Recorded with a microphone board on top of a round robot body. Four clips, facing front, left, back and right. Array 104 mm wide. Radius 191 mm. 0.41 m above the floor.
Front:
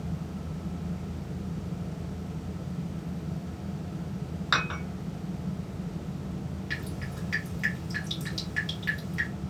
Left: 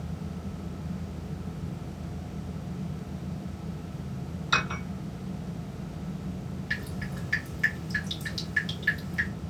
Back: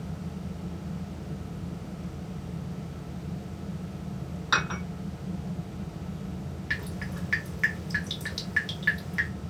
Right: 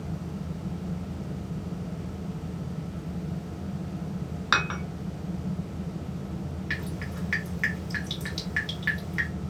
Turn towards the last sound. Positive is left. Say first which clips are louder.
# left 1 dB, back 2 dB
turn(degrees=-135)